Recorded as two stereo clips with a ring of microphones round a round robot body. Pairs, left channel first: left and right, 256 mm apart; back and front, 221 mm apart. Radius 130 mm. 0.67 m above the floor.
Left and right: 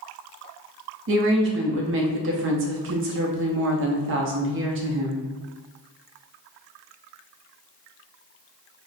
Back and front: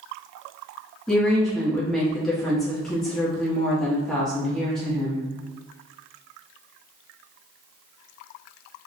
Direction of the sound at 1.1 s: 90° right.